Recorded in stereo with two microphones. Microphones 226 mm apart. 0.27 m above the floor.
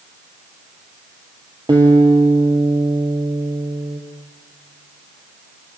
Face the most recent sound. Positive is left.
turn(degrees=-20)  # may be behind; listen again after turning